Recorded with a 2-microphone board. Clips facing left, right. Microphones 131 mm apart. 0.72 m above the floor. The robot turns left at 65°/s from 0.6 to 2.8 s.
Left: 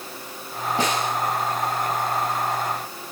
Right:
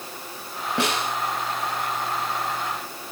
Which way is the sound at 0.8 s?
80° right.